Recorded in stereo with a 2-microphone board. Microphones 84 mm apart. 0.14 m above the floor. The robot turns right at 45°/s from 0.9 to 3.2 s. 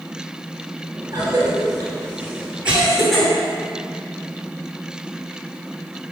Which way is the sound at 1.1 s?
40° right (ahead or behind).